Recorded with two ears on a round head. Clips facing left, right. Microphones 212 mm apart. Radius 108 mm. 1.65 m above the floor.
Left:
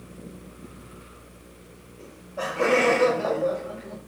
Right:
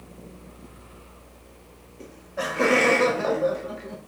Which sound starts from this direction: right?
Laughter, at 2.0 s.